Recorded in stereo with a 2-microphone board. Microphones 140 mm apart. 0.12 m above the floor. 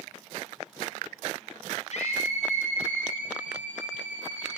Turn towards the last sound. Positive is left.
turn(degrees=70)  # may be behind; listen again after turning